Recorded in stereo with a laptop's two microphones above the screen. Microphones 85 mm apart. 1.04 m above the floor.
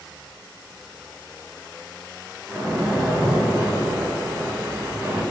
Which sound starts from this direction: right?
A splash, at 2.5 s.